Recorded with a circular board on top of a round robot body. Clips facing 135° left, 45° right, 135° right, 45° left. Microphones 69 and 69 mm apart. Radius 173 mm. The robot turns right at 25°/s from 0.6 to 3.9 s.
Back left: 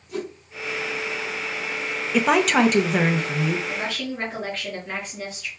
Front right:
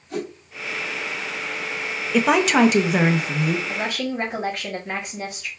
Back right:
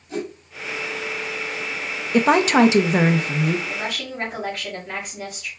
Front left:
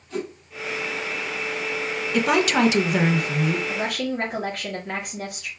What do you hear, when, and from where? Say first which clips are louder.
0.1 s a whoosh: front right 1 dB, back right 1 dB; 70° right, 3 m
2.1 s a woman speaking: front right 1 dB, back right 5 dB; 135° right, 0.8 m; by 3.6 s 100° right, 0.8 m
3.7 s a woman speaking: front right 3 dB, front left 3 dB; 20° left, 3 m; by 5.5 s 25° left, 3 m